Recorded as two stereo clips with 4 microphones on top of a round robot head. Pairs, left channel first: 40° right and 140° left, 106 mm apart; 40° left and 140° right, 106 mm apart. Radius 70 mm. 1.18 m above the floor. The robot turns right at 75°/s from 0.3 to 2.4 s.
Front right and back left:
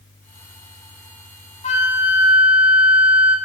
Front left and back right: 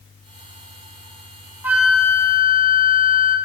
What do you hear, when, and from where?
1.6 s a flute: 70° right, 1.7 m; by 3.4 s 10° right, 1.7 m